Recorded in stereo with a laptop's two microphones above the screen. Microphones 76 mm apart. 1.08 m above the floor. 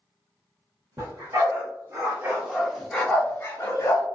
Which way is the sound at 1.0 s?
50° right (ahead or behind).